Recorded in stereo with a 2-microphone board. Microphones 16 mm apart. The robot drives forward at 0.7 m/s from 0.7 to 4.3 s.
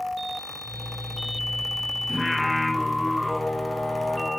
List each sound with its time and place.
2.1 s singing: 5° right (ahead or behind), 3 m